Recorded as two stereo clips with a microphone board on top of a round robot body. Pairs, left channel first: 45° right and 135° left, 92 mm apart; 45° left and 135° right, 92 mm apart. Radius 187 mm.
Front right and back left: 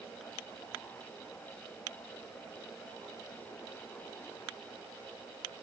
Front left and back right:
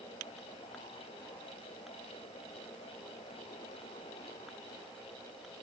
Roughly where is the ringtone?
I don't hear a ringtone.